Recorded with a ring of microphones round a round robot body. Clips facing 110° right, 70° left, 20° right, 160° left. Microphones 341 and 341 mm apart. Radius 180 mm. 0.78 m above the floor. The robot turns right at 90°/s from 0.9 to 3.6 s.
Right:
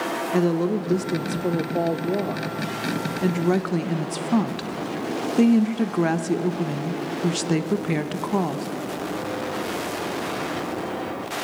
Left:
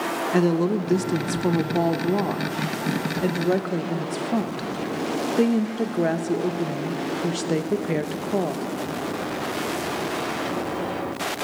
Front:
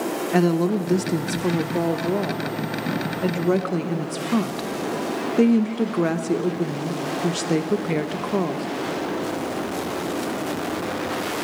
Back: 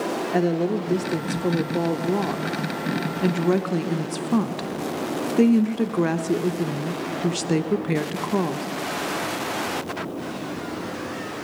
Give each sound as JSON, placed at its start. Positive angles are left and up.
{"t": 0.3, "sound": "a woman speaking", "azimuth_deg": -10, "distance_m": 1.0}